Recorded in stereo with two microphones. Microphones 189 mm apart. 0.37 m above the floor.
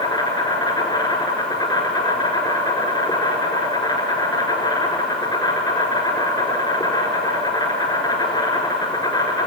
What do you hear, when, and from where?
0.0 s an insect: 20° left (ahead or behind), 4 m